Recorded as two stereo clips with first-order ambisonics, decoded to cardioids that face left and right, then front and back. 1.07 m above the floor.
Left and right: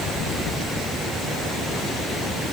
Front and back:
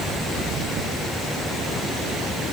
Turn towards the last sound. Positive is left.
No sound to turn to.